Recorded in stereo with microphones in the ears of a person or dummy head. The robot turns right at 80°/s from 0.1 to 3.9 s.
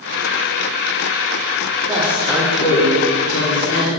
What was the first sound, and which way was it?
A woman speaking, 35° right.